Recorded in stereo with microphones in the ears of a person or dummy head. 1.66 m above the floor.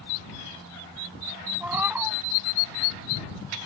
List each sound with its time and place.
1.6 s a cat meowing: 10° right (ahead or behind)